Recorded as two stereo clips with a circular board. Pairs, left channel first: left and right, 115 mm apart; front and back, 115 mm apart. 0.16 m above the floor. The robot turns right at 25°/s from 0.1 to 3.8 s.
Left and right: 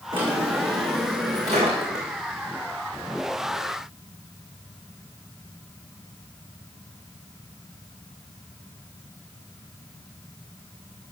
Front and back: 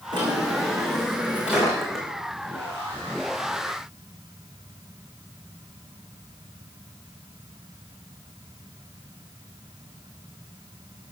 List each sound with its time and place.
0.1 s a drawer: 130° right, 4 m; by 2.1 s 85° right, 4 m